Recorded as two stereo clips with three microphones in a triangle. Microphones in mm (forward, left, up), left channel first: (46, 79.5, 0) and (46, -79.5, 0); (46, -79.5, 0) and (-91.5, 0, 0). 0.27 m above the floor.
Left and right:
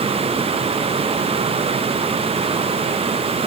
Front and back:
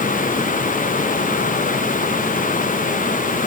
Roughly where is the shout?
No shout in this recording.